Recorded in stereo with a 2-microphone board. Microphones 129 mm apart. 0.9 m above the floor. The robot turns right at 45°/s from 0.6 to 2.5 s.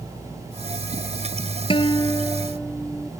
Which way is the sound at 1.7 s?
140° left.